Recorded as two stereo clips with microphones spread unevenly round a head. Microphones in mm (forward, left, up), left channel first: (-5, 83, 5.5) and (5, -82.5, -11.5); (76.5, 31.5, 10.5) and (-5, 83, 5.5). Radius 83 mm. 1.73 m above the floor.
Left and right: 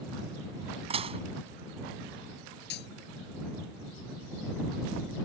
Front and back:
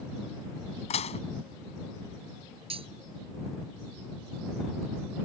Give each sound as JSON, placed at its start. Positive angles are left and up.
{"t": 0.9, "sound": "dishes clattering", "azimuth_deg": -30}
{"t": 2.7, "sound": "cutlery clinking", "azimuth_deg": 125}